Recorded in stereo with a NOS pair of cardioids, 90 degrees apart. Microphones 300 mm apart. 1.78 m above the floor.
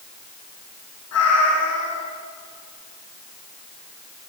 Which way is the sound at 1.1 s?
60° left.